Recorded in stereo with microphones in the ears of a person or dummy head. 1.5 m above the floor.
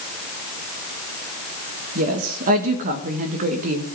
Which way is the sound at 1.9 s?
40° right (ahead or behind).